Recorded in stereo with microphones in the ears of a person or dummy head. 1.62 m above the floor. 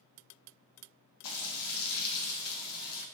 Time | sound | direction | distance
1.2 | frying | 75° left (ahead or behind) | 0.6 m